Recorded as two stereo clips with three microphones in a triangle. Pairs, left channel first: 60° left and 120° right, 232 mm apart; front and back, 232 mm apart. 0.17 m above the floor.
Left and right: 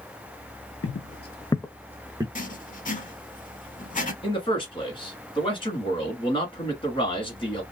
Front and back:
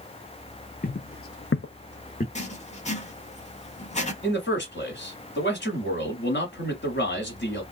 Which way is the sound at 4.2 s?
Straight ahead.